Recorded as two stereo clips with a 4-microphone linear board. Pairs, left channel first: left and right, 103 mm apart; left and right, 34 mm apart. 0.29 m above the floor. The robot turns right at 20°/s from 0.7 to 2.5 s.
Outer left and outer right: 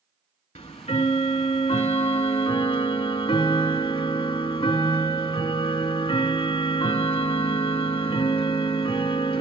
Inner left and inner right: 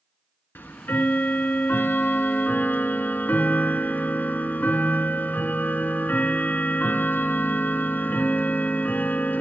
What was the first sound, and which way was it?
Ticking, 80° left.